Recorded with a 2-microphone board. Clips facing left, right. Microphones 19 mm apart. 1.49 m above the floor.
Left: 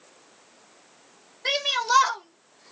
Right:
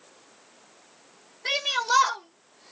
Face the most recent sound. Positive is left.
turn(degrees=0)  # may be behind; listen again after turning